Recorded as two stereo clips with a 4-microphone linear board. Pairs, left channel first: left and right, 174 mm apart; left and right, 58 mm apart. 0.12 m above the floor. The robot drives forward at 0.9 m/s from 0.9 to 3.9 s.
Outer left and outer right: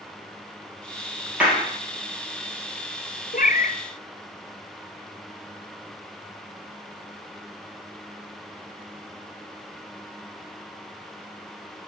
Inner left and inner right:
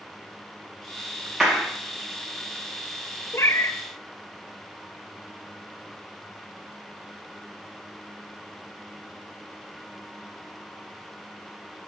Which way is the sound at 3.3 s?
55° left (ahead or behind).